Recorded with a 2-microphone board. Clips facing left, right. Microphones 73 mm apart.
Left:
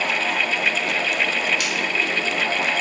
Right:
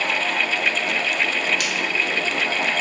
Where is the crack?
55° right (ahead or behind), 0.9 m.